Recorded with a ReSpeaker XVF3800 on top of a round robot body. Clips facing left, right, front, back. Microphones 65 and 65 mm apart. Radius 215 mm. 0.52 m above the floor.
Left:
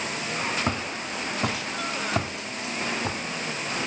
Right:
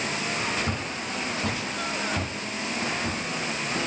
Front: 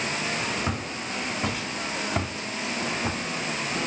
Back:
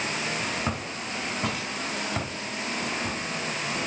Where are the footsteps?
100° left, 2.5 m; by 3.2 s 65° left, 1.7 m.